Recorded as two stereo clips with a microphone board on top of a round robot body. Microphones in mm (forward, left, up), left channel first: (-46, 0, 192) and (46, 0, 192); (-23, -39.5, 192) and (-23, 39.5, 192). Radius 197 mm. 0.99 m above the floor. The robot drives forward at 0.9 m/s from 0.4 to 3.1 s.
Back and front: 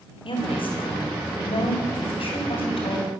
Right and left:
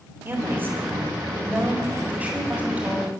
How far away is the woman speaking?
About 4.5 m.